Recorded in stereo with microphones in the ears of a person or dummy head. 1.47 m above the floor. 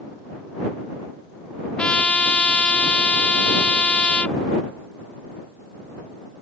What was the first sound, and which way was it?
A trumpet, 5° left (ahead or behind).